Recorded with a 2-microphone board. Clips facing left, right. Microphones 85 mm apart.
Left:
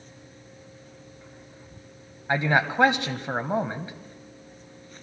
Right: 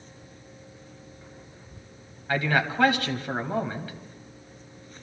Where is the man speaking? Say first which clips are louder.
Left 2 dB; 25° left (ahead or behind), 1.0 m.